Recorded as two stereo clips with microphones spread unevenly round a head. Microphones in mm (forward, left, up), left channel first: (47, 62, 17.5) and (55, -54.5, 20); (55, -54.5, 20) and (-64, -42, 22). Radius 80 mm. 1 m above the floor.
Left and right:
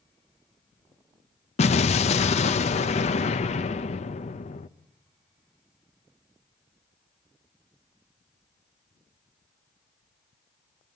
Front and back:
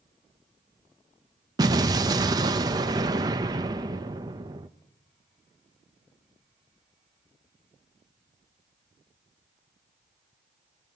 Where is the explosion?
115° left, 0.8 m.